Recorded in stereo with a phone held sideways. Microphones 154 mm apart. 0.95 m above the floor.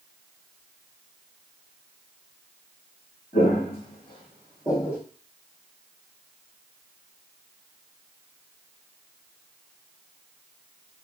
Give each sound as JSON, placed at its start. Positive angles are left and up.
{"t": 3.3, "sound": "footsteps", "side_deg": 45, "distance_m": 2.5}